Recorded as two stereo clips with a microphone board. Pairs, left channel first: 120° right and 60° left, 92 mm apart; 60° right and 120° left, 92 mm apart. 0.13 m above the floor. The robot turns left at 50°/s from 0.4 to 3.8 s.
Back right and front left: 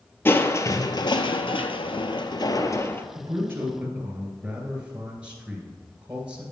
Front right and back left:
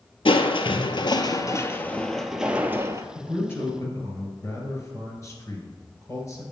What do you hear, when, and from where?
0.2 s crushing: 55° right, 0.6 m; by 3.0 s 170° left, 0.6 m
3.1 s a man speaking: 15° left, 2 m; by 6.4 s 15° right, 2 m